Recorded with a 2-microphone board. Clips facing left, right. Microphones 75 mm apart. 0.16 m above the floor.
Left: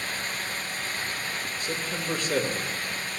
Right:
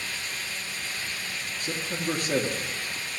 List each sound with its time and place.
1.6 s a man speaking: 40° right (ahead or behind), 3.5 m